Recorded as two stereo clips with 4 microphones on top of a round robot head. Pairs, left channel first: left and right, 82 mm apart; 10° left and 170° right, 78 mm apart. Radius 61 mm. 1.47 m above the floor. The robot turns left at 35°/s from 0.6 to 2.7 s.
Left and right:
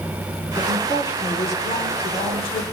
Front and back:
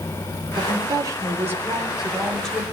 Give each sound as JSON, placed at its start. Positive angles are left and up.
{"t": 0.6, "sound": "a woman speaking", "azimuth_deg": 160, "distance_m": 4.5}